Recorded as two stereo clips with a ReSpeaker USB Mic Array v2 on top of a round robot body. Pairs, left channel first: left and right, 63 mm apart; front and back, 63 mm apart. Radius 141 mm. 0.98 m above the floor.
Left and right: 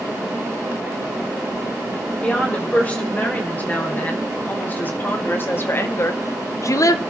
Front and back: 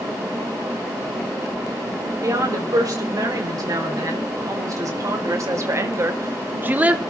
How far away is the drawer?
No drawer in this recording.